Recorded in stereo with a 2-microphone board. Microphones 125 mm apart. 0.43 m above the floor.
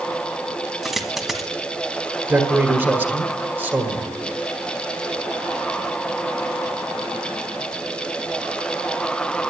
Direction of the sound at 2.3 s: 20° right (ahead or behind).